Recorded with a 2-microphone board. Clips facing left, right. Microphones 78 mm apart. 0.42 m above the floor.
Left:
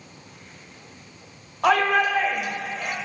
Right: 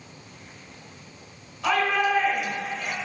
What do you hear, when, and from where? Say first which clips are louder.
1.6 s a shout: left 3 dB; 55° left (ahead or behind), 1.5 m